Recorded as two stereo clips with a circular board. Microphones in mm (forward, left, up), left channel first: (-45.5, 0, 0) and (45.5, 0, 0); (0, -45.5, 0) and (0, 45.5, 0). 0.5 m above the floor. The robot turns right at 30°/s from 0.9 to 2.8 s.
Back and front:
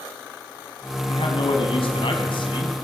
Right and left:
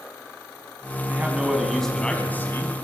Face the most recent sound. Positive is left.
turn(degrees=-145)